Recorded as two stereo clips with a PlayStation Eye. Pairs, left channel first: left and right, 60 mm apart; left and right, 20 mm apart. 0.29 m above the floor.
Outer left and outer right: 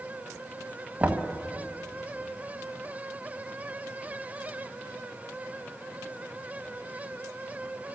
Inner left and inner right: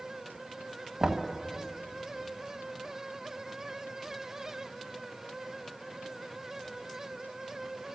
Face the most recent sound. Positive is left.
turn(degrees=-20)  # may be behind; listen again after turning